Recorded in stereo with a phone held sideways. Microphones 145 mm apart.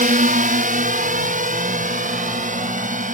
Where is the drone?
65° right (ahead or behind); by 3.1 s 60° right (ahead or behind).